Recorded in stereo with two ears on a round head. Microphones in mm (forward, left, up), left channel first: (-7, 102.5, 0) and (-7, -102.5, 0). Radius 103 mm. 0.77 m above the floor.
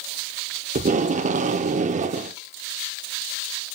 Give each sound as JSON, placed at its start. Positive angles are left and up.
{"t": 0.8, "sound": "tape being pulled", "side_deg": -30, "distance_m": 0.6}